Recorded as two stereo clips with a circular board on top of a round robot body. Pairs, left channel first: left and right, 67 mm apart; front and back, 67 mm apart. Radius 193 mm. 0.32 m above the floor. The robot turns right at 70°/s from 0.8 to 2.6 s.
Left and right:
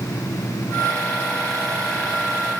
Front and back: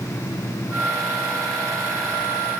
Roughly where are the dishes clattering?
No dishes clattering in this recording.